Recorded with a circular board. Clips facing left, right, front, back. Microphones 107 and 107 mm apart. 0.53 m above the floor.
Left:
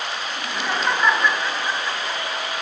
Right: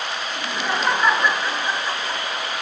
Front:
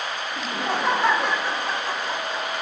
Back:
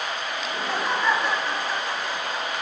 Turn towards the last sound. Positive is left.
turn(degrees=-20)